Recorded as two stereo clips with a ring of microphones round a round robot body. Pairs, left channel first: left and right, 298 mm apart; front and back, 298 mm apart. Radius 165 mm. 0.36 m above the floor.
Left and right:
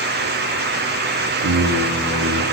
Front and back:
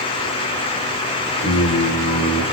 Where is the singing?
55° right, 1.9 m.